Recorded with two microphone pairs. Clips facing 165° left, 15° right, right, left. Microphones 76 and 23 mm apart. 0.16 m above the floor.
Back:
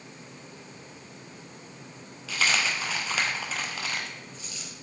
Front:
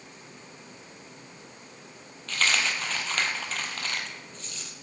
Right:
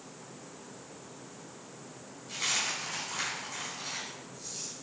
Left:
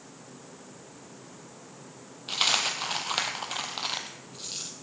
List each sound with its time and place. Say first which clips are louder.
2.3 s a dropped coin: even, left 6 dB; 80° left, 0.9 m